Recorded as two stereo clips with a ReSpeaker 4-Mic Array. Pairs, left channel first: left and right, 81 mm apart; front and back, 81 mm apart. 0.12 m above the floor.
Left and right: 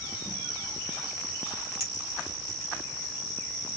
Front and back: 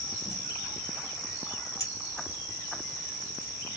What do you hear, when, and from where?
1.8 s a clink: 40° right, 2.5 m